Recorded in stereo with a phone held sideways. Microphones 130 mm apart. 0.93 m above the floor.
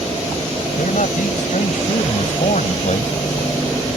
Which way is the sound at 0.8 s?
85° left.